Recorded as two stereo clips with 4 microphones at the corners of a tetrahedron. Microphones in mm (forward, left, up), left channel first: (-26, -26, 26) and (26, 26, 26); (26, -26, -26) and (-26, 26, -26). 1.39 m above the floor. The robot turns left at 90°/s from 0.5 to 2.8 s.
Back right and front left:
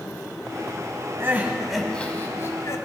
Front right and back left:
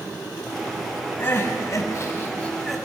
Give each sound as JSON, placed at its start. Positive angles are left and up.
{"t": 1.2, "sound": "crying", "azimuth_deg": 5, "distance_m": 1.6}